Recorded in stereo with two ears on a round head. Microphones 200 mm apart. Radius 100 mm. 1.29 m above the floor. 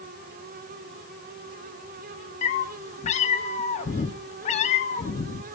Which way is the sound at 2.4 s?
30° left (ahead or behind).